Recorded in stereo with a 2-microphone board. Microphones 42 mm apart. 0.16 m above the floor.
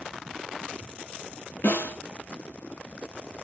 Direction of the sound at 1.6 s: 75° left (ahead or behind).